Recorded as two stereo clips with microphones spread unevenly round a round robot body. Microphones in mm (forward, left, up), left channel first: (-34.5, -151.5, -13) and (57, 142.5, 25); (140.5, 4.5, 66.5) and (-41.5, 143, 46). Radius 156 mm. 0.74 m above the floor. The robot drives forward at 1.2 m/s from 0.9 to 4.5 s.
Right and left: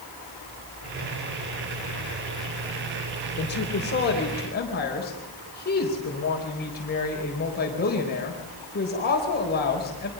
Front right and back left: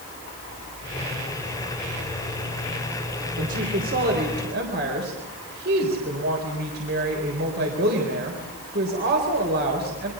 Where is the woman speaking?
160° right, 3 m; by 10.1 s 165° right, 4 m.